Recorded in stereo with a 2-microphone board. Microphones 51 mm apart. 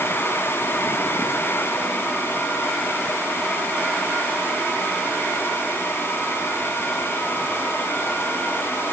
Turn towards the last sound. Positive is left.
No sound to turn to.